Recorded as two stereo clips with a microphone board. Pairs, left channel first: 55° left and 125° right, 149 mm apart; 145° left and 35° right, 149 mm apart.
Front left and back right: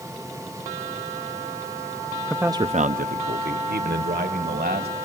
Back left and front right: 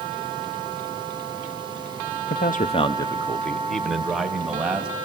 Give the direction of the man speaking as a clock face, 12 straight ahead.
7 o'clock.